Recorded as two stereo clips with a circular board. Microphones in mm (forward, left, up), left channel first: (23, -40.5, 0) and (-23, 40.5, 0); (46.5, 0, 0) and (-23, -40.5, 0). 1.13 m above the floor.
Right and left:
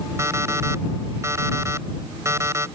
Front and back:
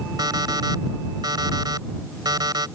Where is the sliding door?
I don't hear a sliding door.